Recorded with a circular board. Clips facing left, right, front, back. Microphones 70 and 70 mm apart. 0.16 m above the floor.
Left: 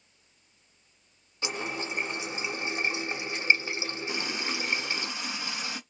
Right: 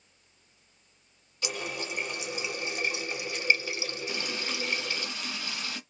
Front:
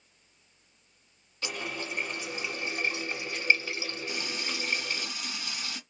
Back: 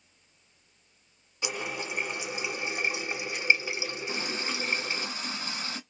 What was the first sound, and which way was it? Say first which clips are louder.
A running tap: left 2 dB, back 2 dB; 125° left.